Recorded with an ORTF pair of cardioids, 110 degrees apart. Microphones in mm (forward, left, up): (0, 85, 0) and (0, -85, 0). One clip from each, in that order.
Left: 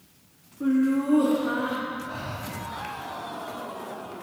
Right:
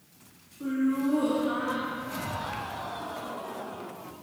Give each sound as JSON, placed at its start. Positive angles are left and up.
{"t": 0.6, "sound": "laughter", "azimuth_deg": 25, "distance_m": 1.3}
{"t": 2.0, "sound": "breathing", "azimuth_deg": 20, "distance_m": 2.5}